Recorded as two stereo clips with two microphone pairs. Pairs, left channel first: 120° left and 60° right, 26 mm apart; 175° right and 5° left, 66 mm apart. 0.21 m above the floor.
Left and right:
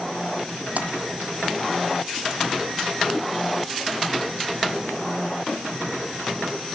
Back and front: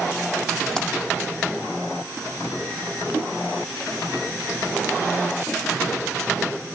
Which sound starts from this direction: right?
A splash, at 0.8 s.